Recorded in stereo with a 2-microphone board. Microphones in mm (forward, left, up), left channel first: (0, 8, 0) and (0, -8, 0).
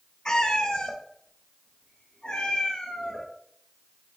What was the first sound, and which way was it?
A cat meowing, 45° left (ahead or behind).